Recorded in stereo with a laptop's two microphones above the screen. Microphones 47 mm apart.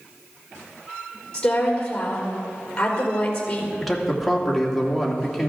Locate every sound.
1.3 s a woman speaking: 25° left (ahead or behind), 4 m
3.8 s a man speaking: centre (ahead or behind), 2.5 m